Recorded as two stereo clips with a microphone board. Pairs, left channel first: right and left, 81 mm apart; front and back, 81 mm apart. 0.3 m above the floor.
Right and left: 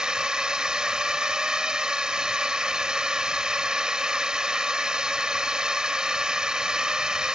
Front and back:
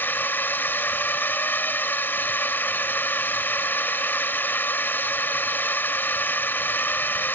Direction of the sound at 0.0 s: 20° left.